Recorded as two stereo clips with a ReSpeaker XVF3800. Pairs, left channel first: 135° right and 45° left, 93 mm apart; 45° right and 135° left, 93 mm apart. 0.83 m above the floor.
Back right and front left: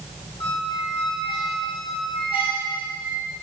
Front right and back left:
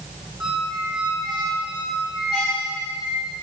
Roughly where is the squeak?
Behind right.